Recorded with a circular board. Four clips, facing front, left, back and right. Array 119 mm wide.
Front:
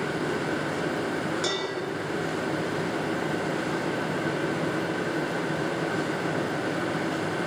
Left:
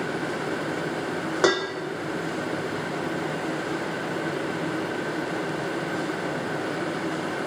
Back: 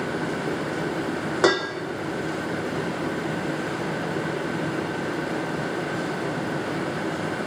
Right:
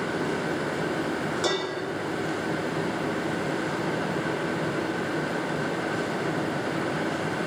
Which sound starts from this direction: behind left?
Dishes clattering, at 1.4 s.